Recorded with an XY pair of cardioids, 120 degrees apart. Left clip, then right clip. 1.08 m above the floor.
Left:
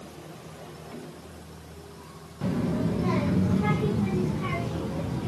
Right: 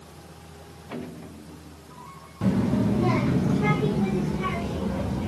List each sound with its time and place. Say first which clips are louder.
2.4 s a child speaking: right 3 dB; 25° right, 1.1 m; by 5.3 s 40° right, 3.5 m